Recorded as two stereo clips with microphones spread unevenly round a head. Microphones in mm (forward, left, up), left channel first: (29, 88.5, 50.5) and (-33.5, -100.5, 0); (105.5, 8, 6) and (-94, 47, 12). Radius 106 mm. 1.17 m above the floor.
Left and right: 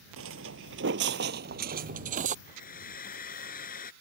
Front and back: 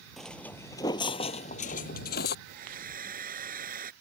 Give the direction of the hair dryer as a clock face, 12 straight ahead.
8 o'clock.